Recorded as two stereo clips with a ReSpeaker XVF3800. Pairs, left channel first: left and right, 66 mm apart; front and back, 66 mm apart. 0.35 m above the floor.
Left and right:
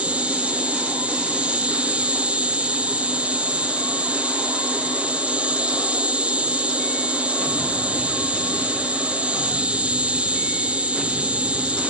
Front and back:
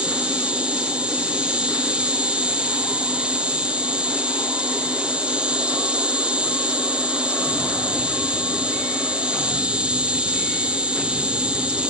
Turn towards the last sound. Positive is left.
turn(degrees=-130)